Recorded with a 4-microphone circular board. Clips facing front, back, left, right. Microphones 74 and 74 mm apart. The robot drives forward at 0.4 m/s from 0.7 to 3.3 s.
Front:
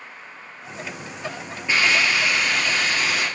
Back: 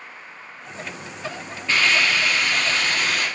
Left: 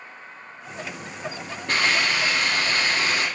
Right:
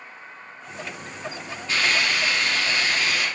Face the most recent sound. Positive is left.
turn(degrees=90)